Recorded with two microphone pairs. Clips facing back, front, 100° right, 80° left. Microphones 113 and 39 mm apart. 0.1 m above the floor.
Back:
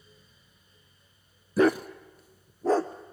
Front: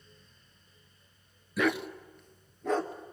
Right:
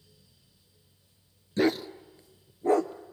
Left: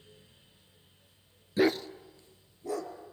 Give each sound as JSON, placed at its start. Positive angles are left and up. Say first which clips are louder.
{"t": 1.6, "sound": "a dog barking", "louder": "back 7 dB, right 1 dB", "azimuth_deg": 155, "distance_m": 0.7}